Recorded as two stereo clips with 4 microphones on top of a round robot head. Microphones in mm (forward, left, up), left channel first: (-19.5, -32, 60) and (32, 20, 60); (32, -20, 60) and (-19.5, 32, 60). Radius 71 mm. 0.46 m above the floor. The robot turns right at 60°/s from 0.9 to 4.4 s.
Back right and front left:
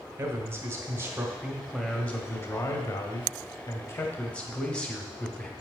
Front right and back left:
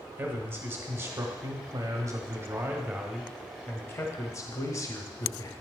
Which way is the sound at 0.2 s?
85° left.